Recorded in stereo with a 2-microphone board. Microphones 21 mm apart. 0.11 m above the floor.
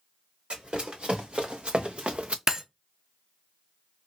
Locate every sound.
0.5 s running footsteps: 60° right (ahead or behind), 1.9 m; by 2.4 s 75° right (ahead or behind), 0.5 m
2.5 s breaking glass: 30° right (ahead or behind), 0.6 m